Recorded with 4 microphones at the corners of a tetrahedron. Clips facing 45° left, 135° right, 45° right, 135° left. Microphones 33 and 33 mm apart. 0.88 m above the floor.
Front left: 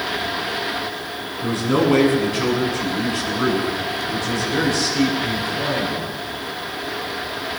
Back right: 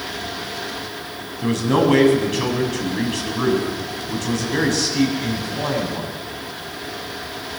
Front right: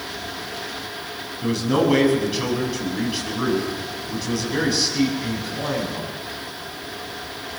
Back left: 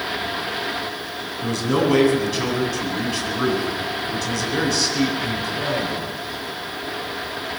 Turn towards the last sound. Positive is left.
turn(degrees=-120)